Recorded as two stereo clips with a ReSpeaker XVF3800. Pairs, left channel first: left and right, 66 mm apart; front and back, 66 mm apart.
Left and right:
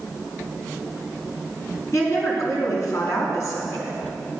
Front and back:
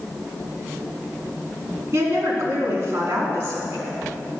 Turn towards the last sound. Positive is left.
turn(degrees=130)